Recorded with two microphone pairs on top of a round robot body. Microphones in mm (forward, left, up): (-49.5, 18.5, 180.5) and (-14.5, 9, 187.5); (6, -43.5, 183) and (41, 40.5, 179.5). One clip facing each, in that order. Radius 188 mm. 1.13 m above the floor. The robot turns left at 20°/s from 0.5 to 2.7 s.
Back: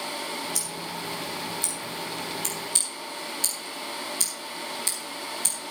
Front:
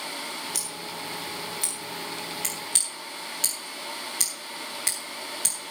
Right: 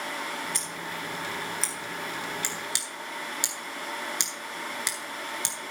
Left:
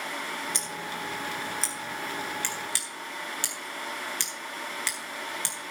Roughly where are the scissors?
Ahead.